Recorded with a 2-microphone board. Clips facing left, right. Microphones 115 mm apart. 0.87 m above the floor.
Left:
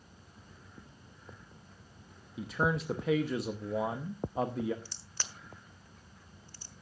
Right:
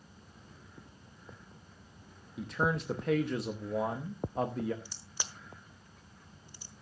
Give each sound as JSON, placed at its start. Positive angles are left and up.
{"t": 2.4, "sound": "a man speaking", "side_deg": 5, "distance_m": 0.9}
{"t": 4.8, "sound": "a crack", "side_deg": -15, "distance_m": 1.2}